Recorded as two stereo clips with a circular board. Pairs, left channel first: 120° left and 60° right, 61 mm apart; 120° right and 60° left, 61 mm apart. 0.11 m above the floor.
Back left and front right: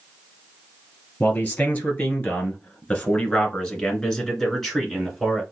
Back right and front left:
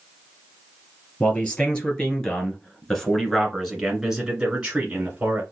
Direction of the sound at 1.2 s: Straight behind.